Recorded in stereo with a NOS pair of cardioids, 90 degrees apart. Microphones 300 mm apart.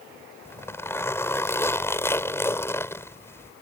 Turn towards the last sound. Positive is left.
turn(degrees=10)